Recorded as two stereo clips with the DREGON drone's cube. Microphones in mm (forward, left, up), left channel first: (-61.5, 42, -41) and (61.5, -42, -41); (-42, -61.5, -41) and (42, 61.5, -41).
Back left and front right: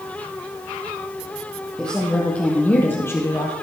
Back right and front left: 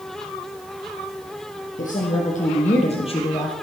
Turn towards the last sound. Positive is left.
turn(degrees=-160)